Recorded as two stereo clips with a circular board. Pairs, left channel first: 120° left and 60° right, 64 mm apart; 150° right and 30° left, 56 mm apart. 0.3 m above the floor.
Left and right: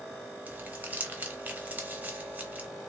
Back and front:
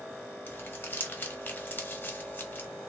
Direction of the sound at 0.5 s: 110° right.